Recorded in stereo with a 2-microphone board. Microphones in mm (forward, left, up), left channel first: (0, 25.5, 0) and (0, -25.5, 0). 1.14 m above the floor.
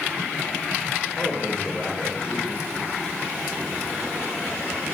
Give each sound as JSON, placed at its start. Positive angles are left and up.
{"t": 1.2, "sound": "a man speaking", "side_deg": -15, "distance_m": 1.2}